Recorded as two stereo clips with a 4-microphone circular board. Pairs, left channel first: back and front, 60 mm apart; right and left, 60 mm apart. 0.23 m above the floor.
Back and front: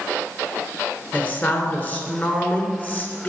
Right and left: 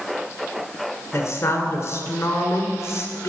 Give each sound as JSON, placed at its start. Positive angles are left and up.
{"t": 1.1, "sound": "a woman speaking", "azimuth_deg": -125, "distance_m": 3.0}